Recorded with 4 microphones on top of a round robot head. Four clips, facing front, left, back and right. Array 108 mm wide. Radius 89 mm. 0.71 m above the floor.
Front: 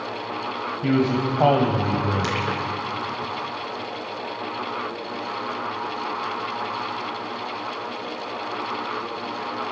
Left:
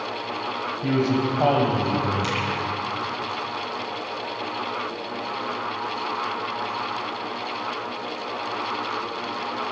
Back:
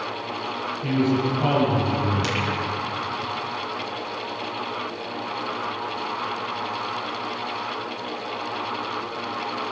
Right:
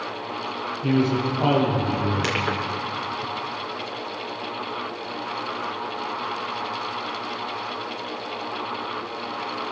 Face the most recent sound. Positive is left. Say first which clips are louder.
# right 1 dB, front 1 dB
turn(degrees=-55)